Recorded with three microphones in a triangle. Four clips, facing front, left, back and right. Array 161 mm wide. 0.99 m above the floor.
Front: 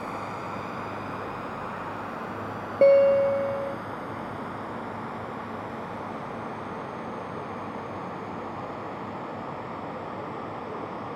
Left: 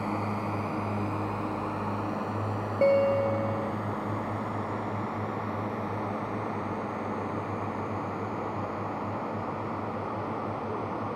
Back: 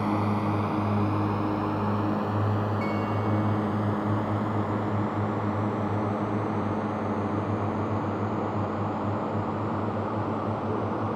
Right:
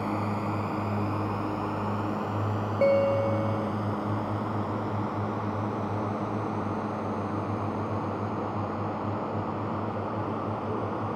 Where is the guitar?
Straight ahead.